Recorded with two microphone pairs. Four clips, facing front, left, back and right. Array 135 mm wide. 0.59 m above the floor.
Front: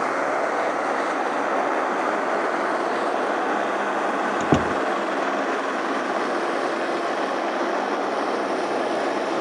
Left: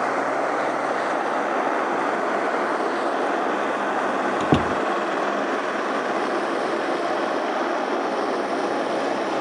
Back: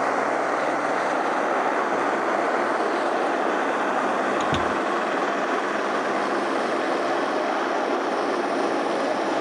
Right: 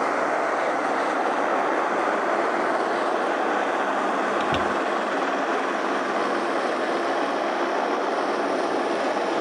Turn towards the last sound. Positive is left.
turn(degrees=50)